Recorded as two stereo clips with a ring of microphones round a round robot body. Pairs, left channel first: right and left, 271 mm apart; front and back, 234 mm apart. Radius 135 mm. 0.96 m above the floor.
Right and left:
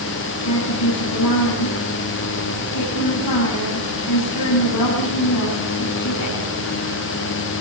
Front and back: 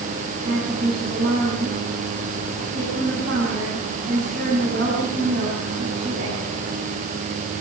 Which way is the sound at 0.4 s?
120° right.